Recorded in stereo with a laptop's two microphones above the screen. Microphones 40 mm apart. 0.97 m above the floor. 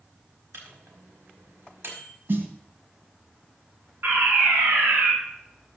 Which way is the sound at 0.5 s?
80° right.